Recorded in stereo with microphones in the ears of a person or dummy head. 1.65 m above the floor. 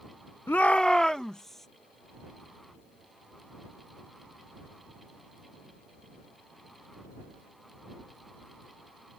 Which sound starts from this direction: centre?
A shout, at 0.5 s.